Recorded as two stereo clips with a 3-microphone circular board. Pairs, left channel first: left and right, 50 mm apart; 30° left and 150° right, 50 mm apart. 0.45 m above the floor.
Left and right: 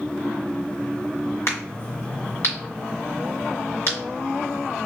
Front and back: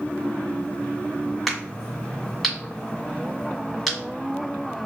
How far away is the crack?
About 1.9 m.